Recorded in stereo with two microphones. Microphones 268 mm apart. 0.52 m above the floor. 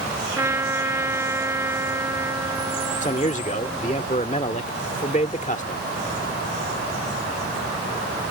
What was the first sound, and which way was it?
A trumpet, 10° right (ahead or behind).